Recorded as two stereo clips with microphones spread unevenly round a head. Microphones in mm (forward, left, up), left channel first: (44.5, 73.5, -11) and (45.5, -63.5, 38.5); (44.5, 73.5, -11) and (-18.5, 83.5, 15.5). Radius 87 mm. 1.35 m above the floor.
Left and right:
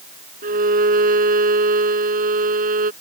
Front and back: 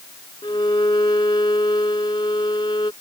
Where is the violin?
70° right.